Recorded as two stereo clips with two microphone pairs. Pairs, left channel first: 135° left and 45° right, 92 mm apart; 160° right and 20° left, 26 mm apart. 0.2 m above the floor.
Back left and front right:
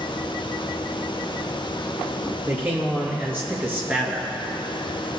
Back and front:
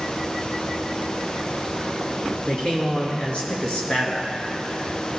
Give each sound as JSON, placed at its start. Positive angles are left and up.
{"t": 2.5, "sound": "a man speaking", "azimuth_deg": -110, "distance_m": 3.5}